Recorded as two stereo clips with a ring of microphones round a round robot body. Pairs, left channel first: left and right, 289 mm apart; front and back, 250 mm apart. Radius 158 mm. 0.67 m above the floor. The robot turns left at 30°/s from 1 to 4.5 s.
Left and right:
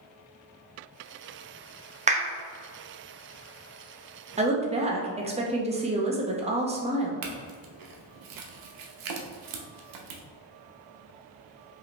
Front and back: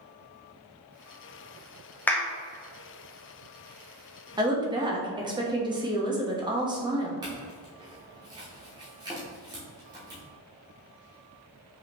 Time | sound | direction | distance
2.1 | a clap | 75° right | 0.8 m
4.4 | a woman speaking | 125° right | 0.8 m
7.2 | a clink | 105° right | 0.7 m